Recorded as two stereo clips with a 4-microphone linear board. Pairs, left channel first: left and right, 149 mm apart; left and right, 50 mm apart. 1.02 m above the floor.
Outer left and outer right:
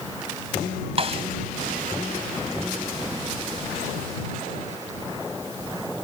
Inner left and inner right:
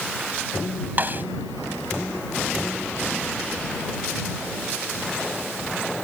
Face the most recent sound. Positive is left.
turn(degrees=-40)  # may be behind; listen again after turning